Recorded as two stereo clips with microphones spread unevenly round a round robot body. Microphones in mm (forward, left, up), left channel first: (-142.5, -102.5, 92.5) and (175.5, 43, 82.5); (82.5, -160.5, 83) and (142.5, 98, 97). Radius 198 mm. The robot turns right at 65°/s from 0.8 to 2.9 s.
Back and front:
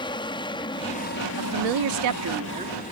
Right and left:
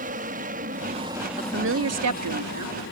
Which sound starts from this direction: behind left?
An aircraft, at 0.0 s.